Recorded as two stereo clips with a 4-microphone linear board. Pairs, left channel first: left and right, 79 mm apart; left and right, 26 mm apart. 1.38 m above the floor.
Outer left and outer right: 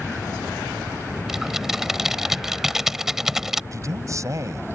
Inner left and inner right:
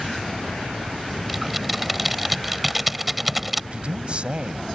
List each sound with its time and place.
1.3 s typing on a keyboard: 5° right (ahead or behind)
3.7 s a man speaking: 40° right (ahead or behind)